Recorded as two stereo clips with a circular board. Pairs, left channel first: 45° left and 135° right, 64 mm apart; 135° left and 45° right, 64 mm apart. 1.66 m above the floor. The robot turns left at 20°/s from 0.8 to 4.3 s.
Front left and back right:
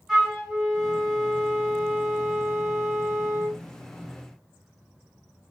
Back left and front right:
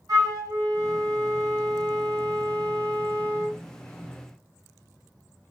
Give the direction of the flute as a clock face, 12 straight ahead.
2 o'clock.